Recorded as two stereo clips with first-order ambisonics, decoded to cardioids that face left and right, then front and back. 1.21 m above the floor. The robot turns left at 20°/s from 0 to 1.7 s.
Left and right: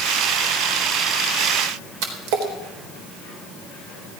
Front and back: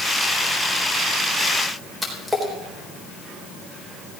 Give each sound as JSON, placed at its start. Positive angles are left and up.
{"t": 2.0, "sound": "a splash", "azimuth_deg": -95, "distance_m": 3.5}